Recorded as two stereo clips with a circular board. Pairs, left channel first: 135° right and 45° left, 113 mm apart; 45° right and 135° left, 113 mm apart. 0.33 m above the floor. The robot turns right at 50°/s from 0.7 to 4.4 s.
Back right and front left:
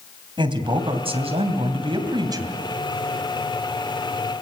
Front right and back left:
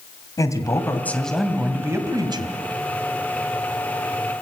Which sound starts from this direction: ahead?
A man speaking, at 0.4 s.